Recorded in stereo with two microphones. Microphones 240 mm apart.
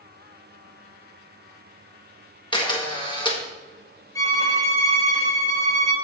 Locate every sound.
2.5 s a camera shutter: 20° left (ahead or behind), 1.4 m
4.2 s a violin: 15° left (ahead or behind), 4 m